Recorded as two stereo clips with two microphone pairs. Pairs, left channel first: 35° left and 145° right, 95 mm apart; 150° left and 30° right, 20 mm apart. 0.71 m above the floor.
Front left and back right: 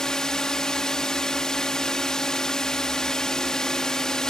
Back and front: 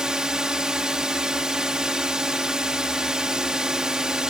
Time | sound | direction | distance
0.0 | a drone | 45° right | ?